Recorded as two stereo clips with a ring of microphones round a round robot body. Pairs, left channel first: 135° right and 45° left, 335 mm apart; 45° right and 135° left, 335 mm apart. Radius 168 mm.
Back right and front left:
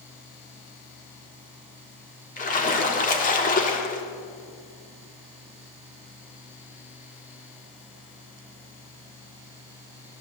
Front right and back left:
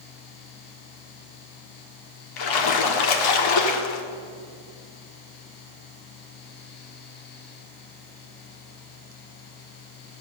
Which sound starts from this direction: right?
A splash, at 2.4 s.